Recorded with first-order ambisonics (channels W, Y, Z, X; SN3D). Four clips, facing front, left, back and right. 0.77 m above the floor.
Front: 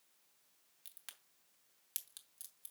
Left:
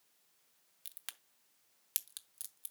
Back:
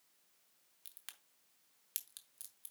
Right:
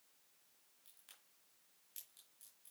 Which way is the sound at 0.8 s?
95° left.